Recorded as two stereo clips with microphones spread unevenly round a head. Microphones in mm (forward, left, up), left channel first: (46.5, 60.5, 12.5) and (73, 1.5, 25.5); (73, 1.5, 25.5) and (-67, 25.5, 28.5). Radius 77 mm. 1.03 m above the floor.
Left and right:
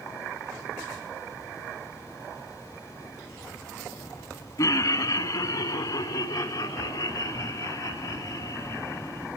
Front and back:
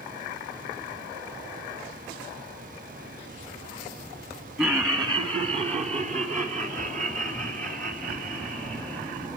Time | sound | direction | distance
4.6 | laughter | 95° left | 1.7 m